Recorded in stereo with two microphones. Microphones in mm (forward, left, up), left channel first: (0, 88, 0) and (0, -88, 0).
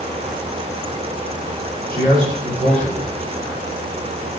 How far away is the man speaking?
About 1.5 m.